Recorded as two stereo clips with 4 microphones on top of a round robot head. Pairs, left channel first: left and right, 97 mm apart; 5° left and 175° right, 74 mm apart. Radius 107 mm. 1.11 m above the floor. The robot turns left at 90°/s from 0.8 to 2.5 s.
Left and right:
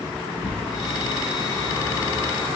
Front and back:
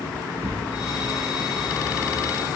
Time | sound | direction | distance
0.4 | tearing paper | 140° left | 0.8 m